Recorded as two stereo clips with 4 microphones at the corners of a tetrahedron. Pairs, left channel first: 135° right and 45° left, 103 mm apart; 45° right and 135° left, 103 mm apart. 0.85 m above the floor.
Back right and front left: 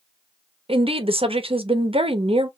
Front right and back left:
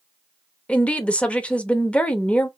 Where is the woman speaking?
30° left, 0.8 m.